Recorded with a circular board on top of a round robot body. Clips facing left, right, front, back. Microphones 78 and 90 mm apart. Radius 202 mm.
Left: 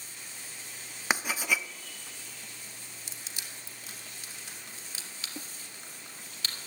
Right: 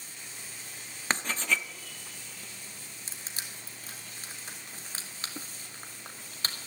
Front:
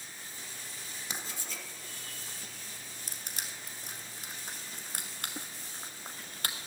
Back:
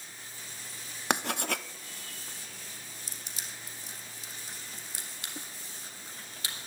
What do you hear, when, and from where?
1.1 s writing: 170° left, 0.8 m
3.1 s crushing: 40° right, 2 m